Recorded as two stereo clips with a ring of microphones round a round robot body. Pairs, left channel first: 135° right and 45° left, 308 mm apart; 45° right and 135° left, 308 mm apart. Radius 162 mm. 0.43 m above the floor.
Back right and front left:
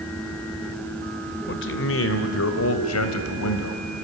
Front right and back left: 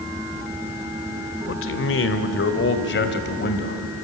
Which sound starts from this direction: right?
A man speaking, at 1.5 s.